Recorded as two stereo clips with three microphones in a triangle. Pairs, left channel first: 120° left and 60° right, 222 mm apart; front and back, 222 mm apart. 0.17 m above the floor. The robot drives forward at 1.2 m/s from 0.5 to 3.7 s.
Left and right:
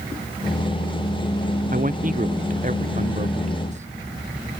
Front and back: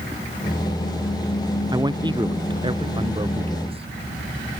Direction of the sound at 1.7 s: 110° right.